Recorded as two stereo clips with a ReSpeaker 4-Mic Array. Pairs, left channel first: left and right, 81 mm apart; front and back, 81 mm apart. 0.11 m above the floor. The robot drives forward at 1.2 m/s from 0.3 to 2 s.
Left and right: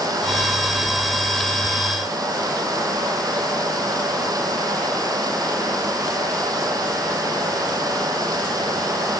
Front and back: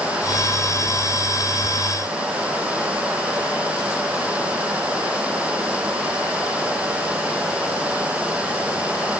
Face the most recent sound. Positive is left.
No sound to turn to.